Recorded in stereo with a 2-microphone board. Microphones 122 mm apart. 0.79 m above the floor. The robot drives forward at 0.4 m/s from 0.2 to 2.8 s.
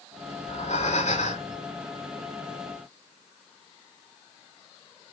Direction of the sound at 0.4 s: 70° left (ahead or behind).